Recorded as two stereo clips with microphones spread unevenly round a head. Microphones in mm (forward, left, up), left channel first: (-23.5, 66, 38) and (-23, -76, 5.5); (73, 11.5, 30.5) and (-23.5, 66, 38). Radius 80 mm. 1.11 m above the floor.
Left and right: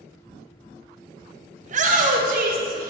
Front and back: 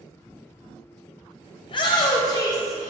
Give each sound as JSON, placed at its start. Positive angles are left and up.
{"t": 1.6, "sound": "a shout", "azimuth_deg": -70, "distance_m": 1.4}